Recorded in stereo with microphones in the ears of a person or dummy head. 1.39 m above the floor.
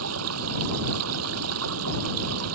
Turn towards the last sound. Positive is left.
turn(degrees=-85)